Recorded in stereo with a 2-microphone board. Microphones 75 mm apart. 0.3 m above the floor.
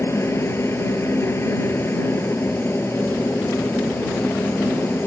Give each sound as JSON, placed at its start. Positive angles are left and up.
{"t": 0.0, "sound": "a helicopter", "side_deg": 35}